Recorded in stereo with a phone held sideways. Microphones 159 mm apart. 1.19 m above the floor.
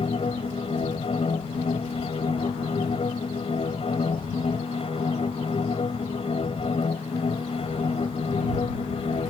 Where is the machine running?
40° left (ahead or behind).